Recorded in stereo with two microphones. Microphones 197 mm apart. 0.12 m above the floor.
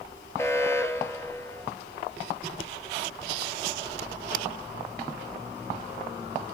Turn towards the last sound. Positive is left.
turn(degrees=15)  # may be behind; listen again after turning